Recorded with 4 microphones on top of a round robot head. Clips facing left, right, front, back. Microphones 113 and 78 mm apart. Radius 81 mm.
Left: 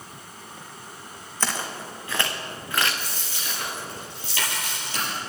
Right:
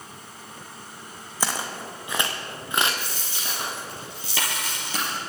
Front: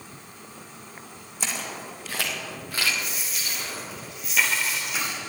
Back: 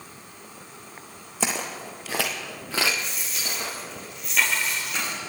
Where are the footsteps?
170° right, 2 m; by 3.8 s 155° right, 4 m.